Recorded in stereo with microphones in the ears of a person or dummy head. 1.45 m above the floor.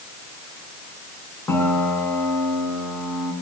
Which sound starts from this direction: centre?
A piano, at 1.5 s.